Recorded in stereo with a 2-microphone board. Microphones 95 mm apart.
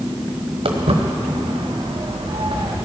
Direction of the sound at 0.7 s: 80° right.